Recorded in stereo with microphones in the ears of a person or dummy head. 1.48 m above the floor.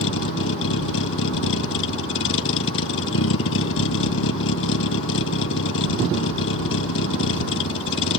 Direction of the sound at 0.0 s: 75° left (ahead or behind).